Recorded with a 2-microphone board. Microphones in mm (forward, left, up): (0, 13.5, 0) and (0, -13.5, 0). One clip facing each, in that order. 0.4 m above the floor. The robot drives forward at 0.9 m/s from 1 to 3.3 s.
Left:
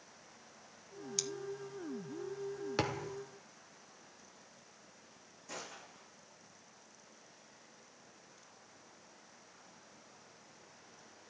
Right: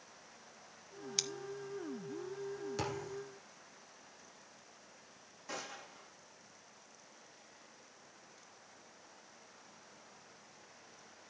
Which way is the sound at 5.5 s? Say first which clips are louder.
Right 2 dB; 35° right (ahead or behind).